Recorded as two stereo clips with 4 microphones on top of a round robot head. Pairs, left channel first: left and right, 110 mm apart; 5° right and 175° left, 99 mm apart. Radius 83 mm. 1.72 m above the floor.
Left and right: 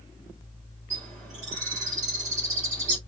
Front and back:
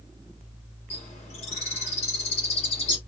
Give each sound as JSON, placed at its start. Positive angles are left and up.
{"t": 0.9, "sound": "a bird", "azimuth_deg": -45, "distance_m": 4.0}